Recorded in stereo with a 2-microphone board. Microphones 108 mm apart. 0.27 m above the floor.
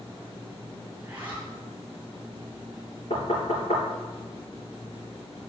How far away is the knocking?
About 3 m.